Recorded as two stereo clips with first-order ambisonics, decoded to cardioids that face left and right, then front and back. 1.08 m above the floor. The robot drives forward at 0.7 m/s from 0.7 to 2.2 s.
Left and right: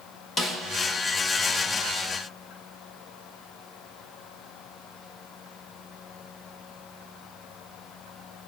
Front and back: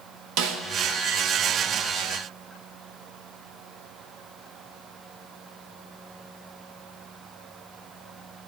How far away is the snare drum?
About 1.0 m.